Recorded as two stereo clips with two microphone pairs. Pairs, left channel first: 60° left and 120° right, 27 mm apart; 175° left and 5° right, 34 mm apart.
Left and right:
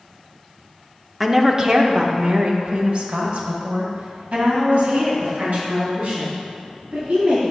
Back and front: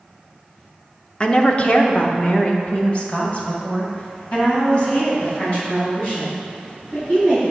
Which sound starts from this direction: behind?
A woman speaking, at 1.2 s.